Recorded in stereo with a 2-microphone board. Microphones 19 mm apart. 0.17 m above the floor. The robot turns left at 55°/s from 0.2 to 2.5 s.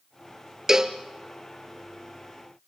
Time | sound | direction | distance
0.7 | a cowbell | 25° right (ahead or behind) | 1.2 m